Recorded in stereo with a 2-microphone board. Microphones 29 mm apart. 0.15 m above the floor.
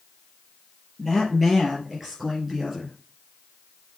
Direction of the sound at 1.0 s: Centre (ahead or behind).